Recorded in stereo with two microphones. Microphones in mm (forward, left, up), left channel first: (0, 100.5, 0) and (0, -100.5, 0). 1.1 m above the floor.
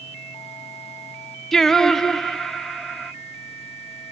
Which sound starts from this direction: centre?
Singing, at 1.5 s.